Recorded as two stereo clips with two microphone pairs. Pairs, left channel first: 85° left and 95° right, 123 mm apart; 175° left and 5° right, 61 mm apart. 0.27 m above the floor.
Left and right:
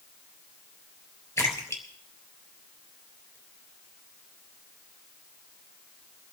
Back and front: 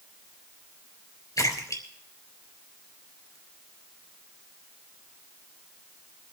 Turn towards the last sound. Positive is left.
turn(degrees=155)